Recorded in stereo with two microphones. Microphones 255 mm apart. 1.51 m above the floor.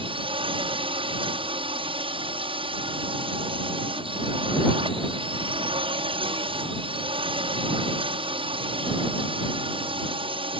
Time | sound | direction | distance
0.0 | a drone | 20° right (ahead or behind) | ?